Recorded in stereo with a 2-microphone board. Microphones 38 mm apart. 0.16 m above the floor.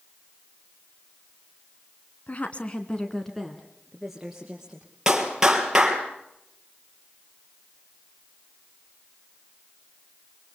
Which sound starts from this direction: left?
A woman speaking, at 2.3 s.